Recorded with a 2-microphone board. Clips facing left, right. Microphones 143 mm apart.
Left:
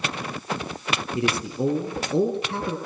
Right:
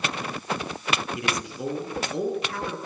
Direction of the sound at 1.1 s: 30° left (ahead or behind).